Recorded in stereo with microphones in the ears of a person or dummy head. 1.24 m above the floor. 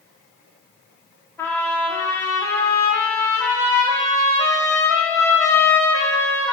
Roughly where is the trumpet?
Centre.